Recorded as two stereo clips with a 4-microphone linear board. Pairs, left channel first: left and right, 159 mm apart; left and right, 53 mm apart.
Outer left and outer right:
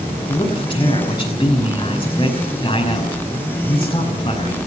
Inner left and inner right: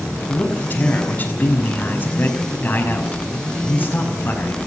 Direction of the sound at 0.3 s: 30° left (ahead or behind).